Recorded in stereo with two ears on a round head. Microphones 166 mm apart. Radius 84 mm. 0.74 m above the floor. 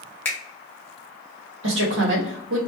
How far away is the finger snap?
About 0.8 m.